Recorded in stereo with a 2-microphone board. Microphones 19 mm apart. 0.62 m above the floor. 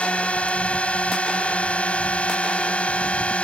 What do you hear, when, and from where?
0.0 s a drone: 75° left (ahead or behind)